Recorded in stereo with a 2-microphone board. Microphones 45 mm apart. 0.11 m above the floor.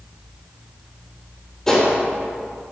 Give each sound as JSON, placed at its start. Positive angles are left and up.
{"t": 1.7, "sound": "a gunshot", "side_deg": 15, "distance_m": 4.0}